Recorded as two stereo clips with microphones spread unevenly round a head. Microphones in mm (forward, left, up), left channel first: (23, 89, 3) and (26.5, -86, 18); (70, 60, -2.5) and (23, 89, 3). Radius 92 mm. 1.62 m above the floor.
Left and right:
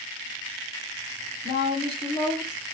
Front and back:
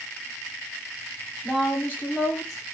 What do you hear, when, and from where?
1.4 s a woman speaking: 50° left, 1.3 m; by 2.6 s 10° right, 1.1 m